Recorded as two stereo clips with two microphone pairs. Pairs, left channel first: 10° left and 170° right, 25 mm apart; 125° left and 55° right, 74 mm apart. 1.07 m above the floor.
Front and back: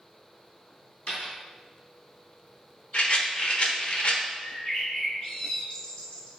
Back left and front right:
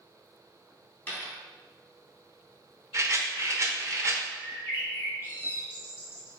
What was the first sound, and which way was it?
A dropped coin, 60° left.